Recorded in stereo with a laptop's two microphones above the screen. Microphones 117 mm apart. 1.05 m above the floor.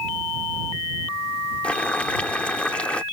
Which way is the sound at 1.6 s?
10° left (ahead or behind).